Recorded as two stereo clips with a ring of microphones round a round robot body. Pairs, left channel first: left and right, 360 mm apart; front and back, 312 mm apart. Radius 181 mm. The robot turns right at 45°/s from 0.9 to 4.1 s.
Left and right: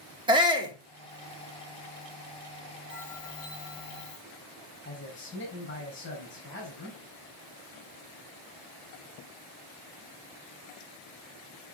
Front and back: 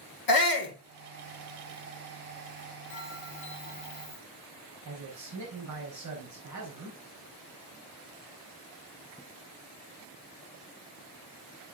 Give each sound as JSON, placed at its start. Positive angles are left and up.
{"t": 0.3, "sound": "a shout", "azimuth_deg": -15, "distance_m": 2.5}
{"t": 2.9, "sound": "a bell", "azimuth_deg": 25, "distance_m": 4.0}
{"t": 4.8, "sound": "a man speaking", "azimuth_deg": 150, "distance_m": 4.5}